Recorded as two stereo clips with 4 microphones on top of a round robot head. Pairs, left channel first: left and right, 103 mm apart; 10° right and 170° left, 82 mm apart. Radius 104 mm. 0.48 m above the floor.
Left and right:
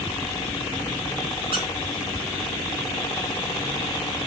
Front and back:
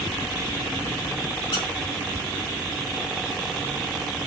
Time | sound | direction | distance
1.5 | a squeak | 45° right | 3.5 m